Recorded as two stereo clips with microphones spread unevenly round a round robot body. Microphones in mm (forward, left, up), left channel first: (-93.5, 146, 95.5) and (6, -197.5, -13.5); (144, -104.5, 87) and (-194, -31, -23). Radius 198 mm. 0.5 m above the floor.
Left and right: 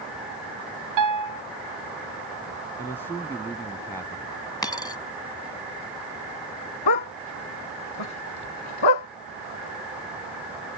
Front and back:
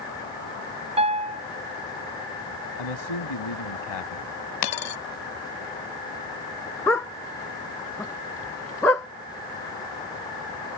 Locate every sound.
1.0 s a piano: 115° right
2.8 s a man speaking: 20° left
4.6 s a dropped coin: 25° left
6.9 s a dog barking: 70° left